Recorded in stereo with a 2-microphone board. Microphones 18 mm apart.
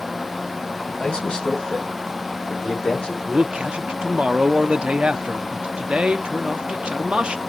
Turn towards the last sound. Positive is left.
turn(degrees=-85)